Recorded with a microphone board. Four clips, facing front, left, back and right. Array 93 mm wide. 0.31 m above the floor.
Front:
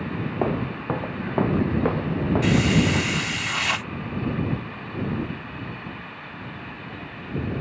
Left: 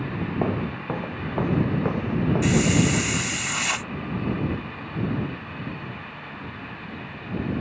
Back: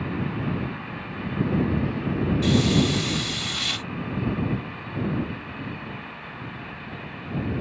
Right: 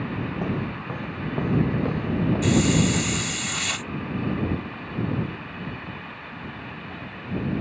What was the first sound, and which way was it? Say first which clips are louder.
Footsteps: left 2 dB, front 4 dB; 30° left.